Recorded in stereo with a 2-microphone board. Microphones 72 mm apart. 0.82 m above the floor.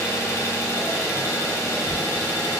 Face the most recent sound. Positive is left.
turn(degrees=40)  # may be behind; listen again after turning